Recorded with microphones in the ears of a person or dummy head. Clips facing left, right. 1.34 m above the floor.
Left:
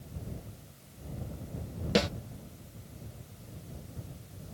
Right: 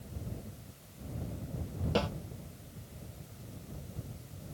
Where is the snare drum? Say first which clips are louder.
Left 4 dB; 25° left (ahead or behind).